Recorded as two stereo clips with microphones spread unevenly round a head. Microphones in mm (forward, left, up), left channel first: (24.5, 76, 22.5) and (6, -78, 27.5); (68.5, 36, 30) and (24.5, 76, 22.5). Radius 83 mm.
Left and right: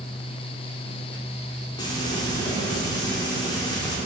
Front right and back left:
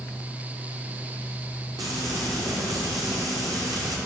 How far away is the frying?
About 4 m.